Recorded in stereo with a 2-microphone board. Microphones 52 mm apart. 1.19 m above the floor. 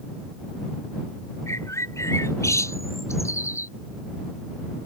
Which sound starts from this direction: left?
A bird, at 1.5 s.